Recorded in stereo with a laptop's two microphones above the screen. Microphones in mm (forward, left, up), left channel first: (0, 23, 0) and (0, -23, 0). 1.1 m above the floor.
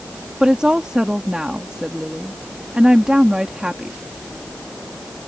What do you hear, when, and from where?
0.4 s a woman speaking: 15° right (ahead or behind)